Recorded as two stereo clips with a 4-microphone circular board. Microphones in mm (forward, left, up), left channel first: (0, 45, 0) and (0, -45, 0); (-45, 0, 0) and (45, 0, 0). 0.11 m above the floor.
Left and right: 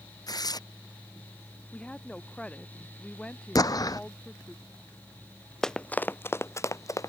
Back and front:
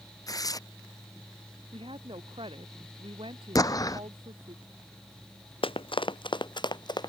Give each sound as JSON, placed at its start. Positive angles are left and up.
{"t": 0.3, "sound": "tearing paper", "azimuth_deg": 130}
{"t": 1.7, "sound": "a woman speaking", "azimuth_deg": 10}
{"t": 3.5, "sound": "an explosion", "azimuth_deg": 135}
{"t": 5.6, "sound": "running footsteps", "azimuth_deg": 175}